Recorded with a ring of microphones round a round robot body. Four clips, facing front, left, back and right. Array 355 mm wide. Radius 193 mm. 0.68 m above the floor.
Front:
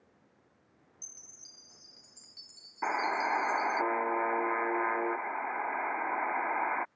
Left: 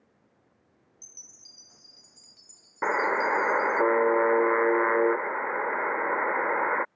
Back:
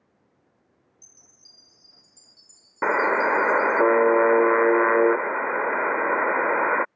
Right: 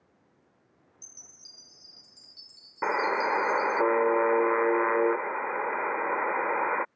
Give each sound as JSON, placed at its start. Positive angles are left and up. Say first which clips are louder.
{"t": 1.0, "sound": "a chime", "louder": "right 1 dB, even", "azimuth_deg": -15}
{"t": 2.8, "sound": "a buzzer", "louder": "left 1 dB, back 10 dB", "azimuth_deg": 175}